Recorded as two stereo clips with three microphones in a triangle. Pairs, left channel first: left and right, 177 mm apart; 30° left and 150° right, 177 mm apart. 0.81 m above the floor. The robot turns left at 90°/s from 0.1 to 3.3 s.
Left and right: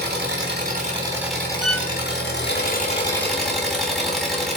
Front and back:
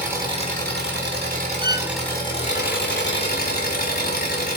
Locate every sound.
0.0 s an engine running: 70° right, 4 m; by 4.6 s straight ahead, 4 m
1.6 s a violin: 175° right, 0.7 m; by 1.9 s 160° left, 0.7 m